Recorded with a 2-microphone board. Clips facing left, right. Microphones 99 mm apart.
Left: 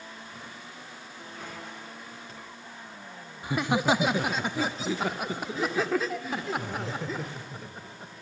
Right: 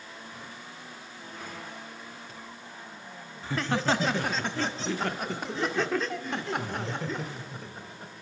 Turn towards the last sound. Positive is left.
turn(degrees=0)  # may be behind; listen again after turning